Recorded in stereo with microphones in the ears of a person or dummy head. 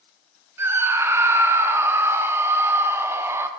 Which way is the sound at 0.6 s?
15° right (ahead or behind).